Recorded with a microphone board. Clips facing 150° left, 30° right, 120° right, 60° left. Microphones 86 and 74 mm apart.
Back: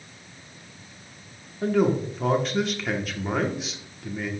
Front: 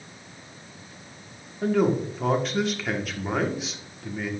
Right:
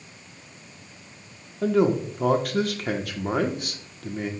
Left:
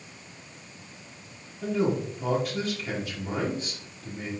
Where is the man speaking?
120° right, 1.5 m.